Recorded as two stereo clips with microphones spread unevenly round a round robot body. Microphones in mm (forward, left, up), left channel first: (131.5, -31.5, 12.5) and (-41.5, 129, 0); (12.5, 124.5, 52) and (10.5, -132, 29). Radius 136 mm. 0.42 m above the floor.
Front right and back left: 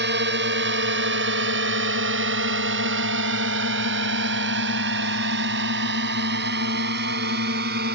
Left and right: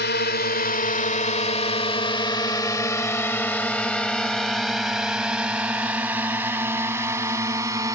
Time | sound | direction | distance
0.0 | a drone | 130° left | ?